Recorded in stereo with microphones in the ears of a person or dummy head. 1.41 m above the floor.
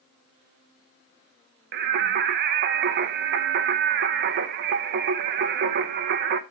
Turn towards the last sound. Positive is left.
turn(degrees=-50)  # may be behind; listen again after turning